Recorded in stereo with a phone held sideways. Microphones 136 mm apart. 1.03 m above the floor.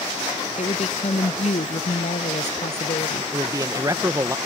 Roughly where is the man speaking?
Right.